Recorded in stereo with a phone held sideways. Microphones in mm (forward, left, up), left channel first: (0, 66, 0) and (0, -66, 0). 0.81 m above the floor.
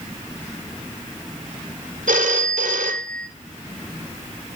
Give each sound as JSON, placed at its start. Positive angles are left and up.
{"t": 2.1, "sound": "a phone ringing", "side_deg": -80, "distance_m": 1.7}